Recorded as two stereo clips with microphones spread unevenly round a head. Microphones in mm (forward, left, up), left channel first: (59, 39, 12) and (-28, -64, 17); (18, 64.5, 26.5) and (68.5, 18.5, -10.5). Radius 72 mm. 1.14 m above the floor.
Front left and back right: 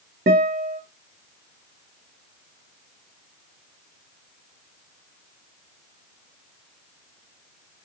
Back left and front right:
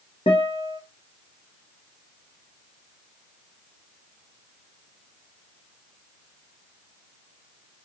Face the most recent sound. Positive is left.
turn(degrees=-165)